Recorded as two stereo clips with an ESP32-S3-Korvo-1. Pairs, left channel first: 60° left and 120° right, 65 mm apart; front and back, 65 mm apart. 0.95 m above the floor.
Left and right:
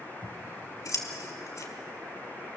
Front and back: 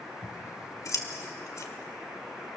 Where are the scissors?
30° left, 1.8 m.